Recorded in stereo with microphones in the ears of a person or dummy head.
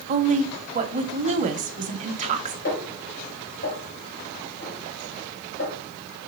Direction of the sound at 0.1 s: 40° right (ahead or behind).